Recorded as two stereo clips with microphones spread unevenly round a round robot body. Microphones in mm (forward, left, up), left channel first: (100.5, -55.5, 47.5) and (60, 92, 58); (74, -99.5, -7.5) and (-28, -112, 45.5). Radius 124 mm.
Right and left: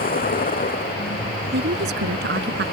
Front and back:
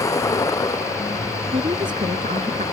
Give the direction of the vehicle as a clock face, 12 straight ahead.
2 o'clock.